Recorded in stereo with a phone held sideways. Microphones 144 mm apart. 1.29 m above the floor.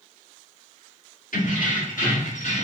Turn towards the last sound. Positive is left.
turn(degrees=55)  # may be behind; listen again after turning